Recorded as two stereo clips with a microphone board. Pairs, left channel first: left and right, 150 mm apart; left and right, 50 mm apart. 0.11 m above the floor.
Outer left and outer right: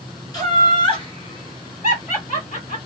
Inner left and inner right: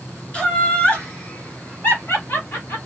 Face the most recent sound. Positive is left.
turn(degrees=55)  # may be behind; listen again after turning